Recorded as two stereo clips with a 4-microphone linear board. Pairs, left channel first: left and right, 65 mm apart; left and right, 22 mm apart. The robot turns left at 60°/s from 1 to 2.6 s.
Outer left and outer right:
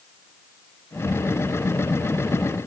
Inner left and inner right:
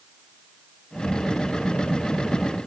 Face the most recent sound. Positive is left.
No sound to turn to.